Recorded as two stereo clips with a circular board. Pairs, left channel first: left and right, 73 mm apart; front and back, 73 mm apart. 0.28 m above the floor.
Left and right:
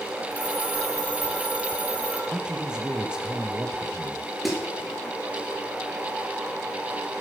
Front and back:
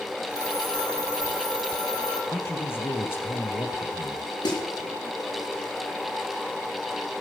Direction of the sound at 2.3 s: 20° right.